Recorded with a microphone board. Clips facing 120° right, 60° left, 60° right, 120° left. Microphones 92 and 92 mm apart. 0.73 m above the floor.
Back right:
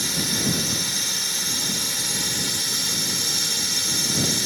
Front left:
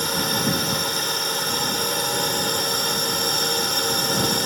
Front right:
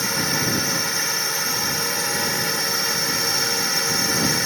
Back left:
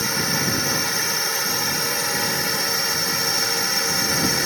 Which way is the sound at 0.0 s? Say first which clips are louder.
Front left 4 dB, even; 30° left.